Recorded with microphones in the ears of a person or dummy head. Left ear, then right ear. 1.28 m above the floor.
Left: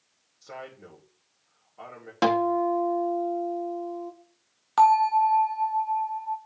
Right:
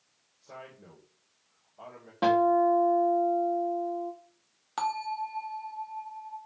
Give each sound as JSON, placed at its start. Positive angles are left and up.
{"t": 0.4, "sound": "a man speaking", "side_deg": 60, "distance_m": 2.5}
{"t": 2.2, "sound": "a guitar", "side_deg": 70, "distance_m": 1.8}
{"t": 4.8, "sound": "a bell", "side_deg": 25, "distance_m": 1.2}